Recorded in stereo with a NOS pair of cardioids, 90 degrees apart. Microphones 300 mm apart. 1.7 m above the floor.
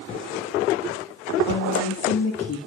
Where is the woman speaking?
65° left, 4 m; by 2.6 s 45° left, 4 m.